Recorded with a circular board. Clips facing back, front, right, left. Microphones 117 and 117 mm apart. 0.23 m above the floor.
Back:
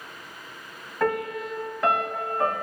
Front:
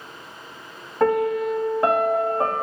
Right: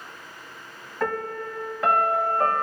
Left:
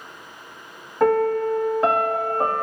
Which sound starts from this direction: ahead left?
A piano, at 1.0 s.